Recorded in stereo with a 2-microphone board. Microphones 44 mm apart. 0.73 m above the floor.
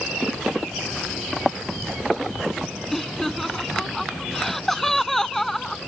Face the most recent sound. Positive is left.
turn(degrees=10)  # may be behind; listen again after turning